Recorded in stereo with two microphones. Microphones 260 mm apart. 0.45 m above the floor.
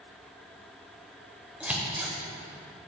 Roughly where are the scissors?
Centre.